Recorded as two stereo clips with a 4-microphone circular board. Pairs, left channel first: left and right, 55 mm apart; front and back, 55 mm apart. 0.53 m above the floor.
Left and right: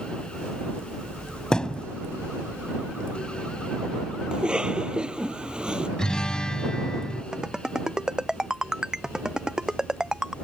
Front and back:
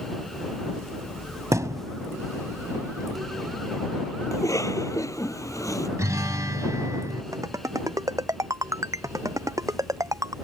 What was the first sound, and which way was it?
A thud, 165° left.